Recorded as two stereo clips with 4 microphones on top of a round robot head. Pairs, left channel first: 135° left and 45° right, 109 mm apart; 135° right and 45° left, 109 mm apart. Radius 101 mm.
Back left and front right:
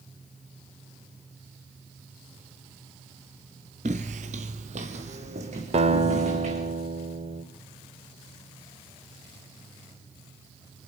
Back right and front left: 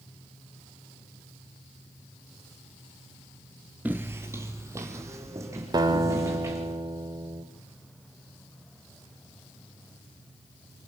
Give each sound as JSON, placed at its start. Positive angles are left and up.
{"t": 3.9, "sound": "footsteps", "azimuth_deg": -30, "distance_m": 0.8}
{"t": 5.7, "sound": "a guitar", "azimuth_deg": -10, "distance_m": 1.4}